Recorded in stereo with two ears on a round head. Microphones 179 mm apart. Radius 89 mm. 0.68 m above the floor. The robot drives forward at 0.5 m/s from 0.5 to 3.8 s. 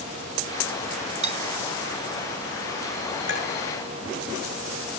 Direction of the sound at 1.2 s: 35° right (ahead or behind).